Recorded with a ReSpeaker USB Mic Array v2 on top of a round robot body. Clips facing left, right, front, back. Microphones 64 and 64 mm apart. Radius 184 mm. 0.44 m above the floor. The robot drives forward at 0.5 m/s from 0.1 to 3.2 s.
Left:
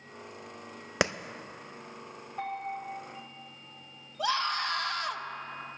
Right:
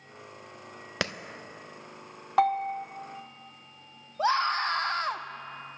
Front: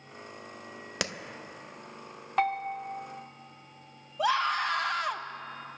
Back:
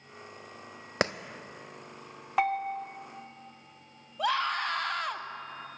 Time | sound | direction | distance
1.0 | a clap | 150° left | 0.6 m
2.4 | a bell | 100° right | 0.5 m
4.2 | a scream | 85° right | 1.0 m